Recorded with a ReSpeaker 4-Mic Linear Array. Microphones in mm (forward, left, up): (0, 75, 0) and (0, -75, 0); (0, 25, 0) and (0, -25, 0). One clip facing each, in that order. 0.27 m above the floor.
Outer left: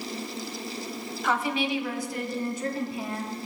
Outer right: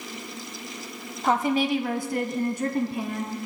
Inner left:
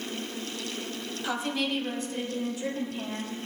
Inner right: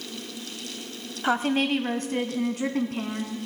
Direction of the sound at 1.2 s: 35° right (ahead or behind).